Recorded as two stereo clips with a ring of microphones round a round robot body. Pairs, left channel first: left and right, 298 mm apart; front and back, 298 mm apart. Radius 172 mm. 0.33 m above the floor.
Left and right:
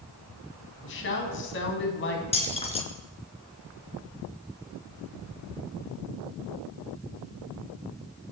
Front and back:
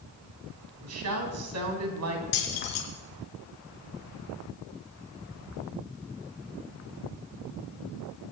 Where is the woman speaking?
140° left, 3.5 m.